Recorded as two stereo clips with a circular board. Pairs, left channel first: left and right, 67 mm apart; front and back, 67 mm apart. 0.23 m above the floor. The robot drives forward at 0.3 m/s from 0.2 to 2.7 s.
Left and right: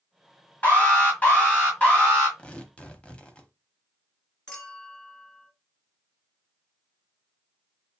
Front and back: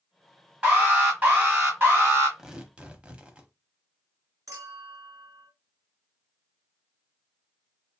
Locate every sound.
0.6 s an alarm: 125° left, 1.7 m; by 2.3 s 145° left, 1.9 m
2.4 s tearing paper: 115° left, 0.6 m; by 3.5 s 135° left, 0.7 m
4.5 s a clink: 165° left, 2 m